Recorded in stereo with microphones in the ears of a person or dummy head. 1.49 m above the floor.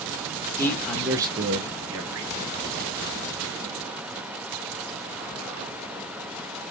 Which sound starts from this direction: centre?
A man speaking, at 0.6 s.